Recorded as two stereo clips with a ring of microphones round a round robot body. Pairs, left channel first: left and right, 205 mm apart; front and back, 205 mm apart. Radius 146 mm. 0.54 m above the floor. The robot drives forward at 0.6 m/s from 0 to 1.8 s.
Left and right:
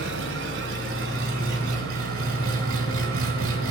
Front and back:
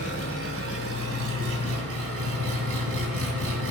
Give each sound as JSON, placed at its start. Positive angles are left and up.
{"t": 0.0, "sound": "an engine running", "azimuth_deg": -135, "distance_m": 1.8}